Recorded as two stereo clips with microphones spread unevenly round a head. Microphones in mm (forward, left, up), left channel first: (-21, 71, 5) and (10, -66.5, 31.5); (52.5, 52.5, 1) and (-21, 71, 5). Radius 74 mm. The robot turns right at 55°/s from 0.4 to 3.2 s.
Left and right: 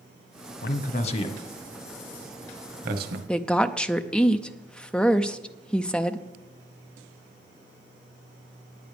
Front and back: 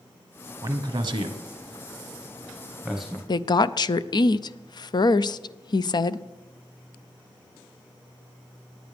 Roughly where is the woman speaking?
Ahead.